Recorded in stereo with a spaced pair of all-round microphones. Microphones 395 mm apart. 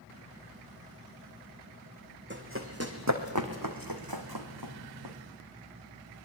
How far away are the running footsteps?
About 3.5 m.